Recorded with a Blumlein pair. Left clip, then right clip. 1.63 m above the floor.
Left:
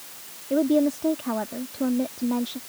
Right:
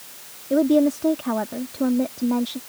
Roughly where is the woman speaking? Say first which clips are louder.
Right 3 dB; ahead.